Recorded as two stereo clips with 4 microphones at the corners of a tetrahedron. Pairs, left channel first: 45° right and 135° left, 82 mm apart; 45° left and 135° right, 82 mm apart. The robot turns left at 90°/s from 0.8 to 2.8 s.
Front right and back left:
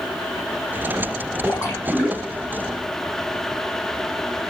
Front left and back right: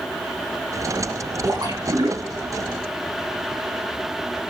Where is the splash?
80° right, 5 m; by 2.5 s 175° right, 5 m.